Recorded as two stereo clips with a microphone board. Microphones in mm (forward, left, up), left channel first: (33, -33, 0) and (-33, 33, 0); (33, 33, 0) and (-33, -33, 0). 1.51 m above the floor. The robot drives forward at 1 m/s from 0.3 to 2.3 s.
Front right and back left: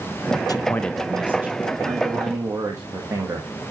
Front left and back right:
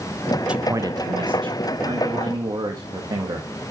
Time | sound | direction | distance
0.5 | a man speaking | 60° right | 0.6 m